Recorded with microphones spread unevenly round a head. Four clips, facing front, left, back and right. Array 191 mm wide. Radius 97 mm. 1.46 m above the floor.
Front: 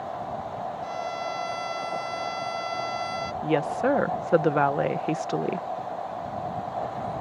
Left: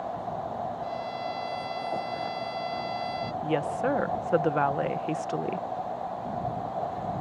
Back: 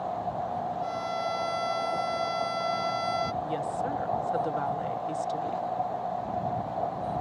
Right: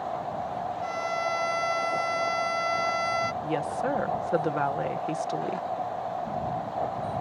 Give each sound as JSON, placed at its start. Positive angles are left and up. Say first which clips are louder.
{"t": 0.8, "sound": "a violin", "louder": "right 3 dB, even", "azimuth_deg": -95}
{"t": 3.4, "sound": "a woman speaking", "louder": "left 1 dB, front 6 dB", "azimuth_deg": 5}